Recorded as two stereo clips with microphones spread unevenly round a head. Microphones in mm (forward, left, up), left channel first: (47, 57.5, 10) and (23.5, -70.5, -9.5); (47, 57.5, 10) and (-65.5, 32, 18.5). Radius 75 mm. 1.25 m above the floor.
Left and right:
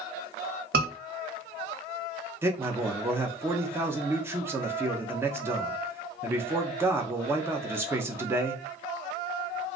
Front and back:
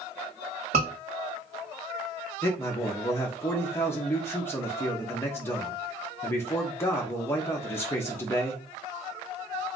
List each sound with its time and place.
0.7 s a scream: 110° right, 1.4 m
2.4 s a man speaking: 45° right, 0.7 m